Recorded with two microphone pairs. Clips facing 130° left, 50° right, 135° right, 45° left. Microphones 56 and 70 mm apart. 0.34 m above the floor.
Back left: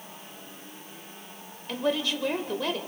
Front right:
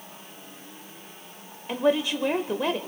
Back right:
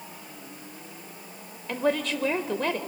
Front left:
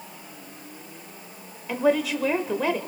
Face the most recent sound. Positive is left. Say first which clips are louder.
# front right 4 dB, front left 4 dB
turn(degrees=-35)